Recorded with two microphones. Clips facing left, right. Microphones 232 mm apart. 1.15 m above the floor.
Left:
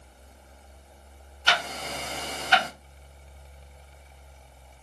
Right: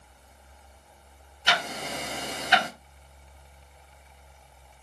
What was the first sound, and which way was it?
Ticking, 15° right (ahead or behind).